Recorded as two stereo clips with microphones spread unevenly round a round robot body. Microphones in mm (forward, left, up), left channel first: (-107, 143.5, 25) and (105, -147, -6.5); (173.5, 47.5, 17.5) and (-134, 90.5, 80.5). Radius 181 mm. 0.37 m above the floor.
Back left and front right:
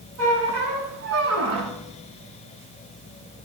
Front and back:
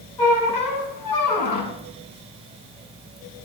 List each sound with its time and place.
0.2 s a squeak: 5° right, 2.5 m